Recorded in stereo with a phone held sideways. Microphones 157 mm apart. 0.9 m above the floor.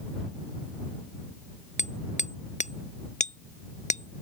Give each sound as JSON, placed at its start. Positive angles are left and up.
{"t": 1.8, "sound": "hammering", "side_deg": 50}